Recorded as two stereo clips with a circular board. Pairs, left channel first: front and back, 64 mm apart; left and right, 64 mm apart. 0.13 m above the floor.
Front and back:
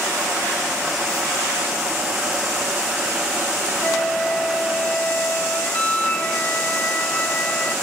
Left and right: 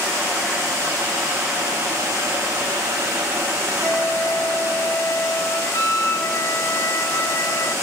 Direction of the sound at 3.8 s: 60° left.